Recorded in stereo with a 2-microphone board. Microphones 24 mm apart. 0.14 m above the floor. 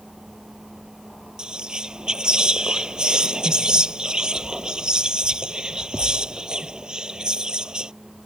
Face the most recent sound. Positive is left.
turn(degrees=-35)  # may be behind; listen again after turning